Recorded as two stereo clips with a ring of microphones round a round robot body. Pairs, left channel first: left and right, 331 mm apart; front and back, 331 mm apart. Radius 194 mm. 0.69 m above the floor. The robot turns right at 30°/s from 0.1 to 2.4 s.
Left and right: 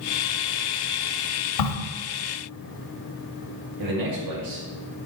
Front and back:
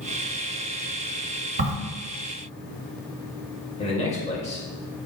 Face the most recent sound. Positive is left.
turn(degrees=-70)